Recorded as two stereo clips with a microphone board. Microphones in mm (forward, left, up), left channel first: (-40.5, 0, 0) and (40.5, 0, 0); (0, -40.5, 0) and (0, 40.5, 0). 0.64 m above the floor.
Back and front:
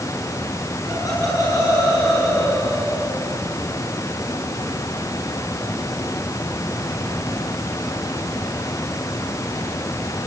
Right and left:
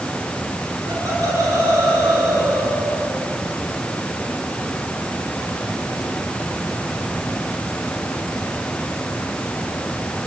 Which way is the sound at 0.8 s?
130° left.